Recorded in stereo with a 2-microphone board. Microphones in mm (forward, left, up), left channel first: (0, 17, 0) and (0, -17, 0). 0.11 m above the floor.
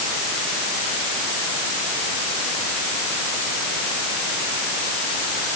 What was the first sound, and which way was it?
Only background noise.